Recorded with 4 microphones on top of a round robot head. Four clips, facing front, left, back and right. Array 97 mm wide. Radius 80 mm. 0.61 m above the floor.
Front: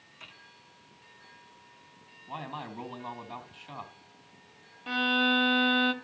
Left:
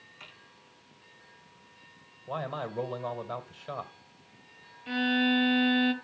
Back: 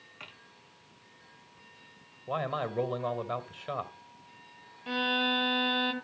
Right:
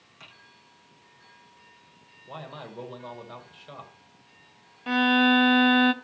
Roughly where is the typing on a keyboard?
Behind right.